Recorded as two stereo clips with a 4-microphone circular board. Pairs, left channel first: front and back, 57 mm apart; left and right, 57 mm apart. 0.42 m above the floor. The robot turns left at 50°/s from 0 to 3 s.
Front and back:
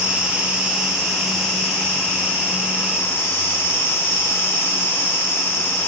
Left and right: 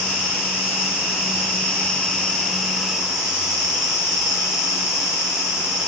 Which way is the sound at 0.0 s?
145° left.